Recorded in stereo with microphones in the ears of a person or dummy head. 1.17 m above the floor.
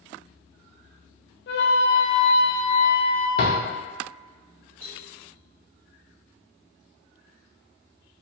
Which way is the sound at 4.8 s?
80° right.